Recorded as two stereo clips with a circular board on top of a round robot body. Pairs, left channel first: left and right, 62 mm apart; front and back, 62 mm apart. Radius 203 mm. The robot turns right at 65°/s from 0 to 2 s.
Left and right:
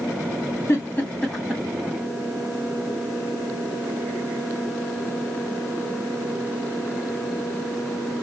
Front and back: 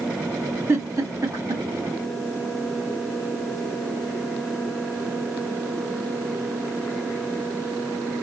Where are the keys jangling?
I don't hear keys jangling.